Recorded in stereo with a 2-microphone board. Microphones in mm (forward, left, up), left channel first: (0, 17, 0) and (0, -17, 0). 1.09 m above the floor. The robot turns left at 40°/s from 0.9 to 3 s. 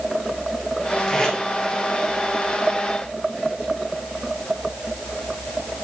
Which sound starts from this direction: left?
Tape being pulled, at 1.1 s.